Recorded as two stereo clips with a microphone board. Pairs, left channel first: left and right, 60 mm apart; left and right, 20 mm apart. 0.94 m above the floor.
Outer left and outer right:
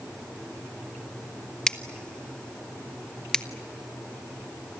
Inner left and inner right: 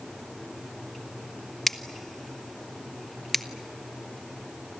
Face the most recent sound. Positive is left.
turn(degrees=15)  # may be behind; listen again after turning